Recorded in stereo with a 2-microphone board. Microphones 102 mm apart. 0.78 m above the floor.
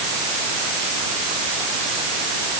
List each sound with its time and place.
Only background noise.